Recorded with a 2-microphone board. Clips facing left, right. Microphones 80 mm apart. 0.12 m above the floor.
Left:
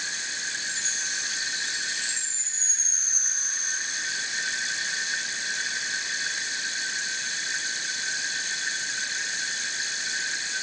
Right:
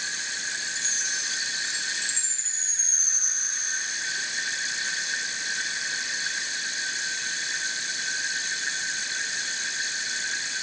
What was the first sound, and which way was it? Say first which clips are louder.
A chime: even; 20° right (ahead or behind).